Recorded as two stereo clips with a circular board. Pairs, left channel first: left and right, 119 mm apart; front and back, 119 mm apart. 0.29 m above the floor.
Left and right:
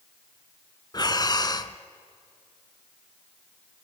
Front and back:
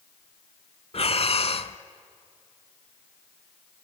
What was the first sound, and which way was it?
Breathing, 35° left.